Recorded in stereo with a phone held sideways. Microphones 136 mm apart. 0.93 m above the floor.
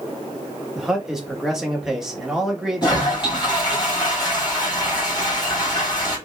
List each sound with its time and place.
0.8 s a man speaking: 5° right (ahead or behind), 1.3 m
2.8 s a toilet flushing: 30° left (ahead or behind), 2.5 m